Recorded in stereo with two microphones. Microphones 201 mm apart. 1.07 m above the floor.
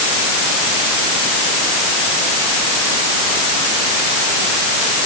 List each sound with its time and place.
Only background noise.